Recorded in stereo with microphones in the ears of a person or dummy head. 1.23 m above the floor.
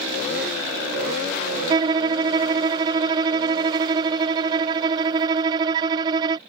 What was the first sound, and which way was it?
A violin, 25° right (ahead or behind).